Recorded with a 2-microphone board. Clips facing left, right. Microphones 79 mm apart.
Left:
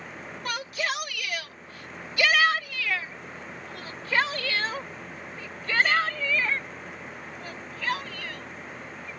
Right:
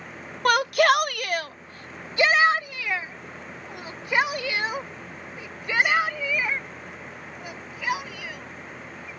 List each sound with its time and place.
0.5 s a shout: 60° right (ahead or behind); by 9.1 s 10° right (ahead or behind)